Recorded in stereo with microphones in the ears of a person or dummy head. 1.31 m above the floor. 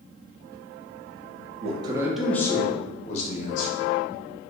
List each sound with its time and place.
1.6 s a man speaking: 40° right (ahead or behind), 0.6 m; by 3.7 s 50° left (ahead or behind), 1.2 m